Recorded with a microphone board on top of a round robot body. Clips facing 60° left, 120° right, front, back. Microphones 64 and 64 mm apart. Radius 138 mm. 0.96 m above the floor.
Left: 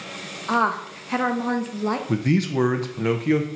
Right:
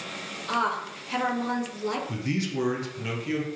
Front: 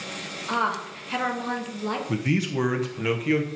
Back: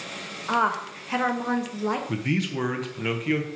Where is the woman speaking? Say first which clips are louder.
Left 5 dB, back 2 dB; 110° left, 1.2 m.